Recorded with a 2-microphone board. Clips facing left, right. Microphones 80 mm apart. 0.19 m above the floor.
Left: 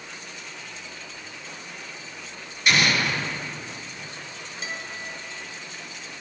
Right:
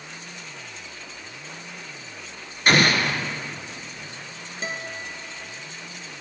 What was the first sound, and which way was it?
An explosion, 45° right (ahead or behind).